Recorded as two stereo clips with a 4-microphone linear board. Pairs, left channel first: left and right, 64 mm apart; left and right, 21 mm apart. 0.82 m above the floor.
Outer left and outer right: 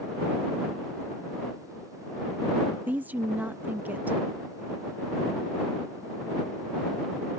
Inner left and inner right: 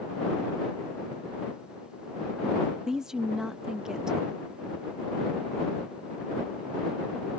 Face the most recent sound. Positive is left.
turn(degrees=-25)  # may be behind; listen again after turning